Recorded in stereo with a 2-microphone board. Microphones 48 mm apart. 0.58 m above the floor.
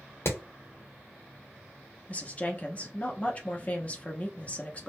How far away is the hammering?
About 0.8 m.